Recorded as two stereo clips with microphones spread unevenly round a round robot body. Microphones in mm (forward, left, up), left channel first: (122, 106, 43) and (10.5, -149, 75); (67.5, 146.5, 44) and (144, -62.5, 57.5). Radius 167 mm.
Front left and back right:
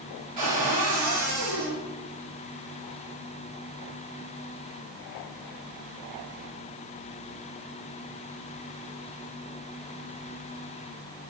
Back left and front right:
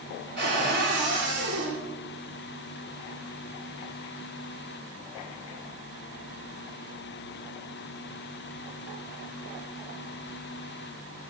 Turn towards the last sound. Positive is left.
turn(degrees=-125)